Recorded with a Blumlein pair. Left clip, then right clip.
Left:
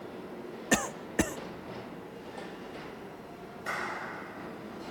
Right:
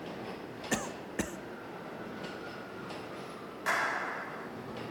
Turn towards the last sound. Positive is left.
turn(degrees=-30)